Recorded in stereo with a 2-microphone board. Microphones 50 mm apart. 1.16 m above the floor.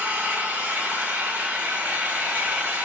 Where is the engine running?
30° right (ahead or behind), 1.4 m.